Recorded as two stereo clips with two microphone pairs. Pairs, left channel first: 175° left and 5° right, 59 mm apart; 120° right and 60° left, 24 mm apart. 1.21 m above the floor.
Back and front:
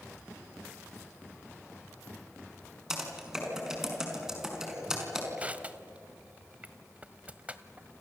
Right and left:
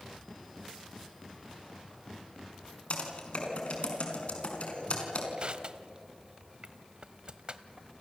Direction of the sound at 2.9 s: 85° right.